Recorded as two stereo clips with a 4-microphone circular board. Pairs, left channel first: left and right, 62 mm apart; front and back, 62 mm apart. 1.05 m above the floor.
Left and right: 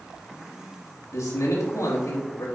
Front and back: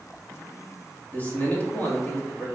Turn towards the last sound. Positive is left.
turn(degrees=60)